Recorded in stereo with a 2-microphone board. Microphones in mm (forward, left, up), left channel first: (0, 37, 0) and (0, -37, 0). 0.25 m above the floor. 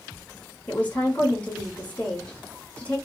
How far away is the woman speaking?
About 2 m.